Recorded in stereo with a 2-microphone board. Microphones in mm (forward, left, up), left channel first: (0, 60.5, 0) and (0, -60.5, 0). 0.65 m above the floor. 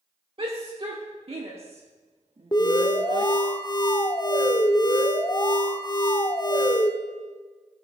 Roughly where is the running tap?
No running tap in this recording.